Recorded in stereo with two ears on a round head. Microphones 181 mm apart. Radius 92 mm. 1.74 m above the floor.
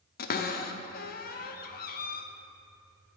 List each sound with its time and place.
0.2 s a cupboard door: 45° left (ahead or behind), 0.5 m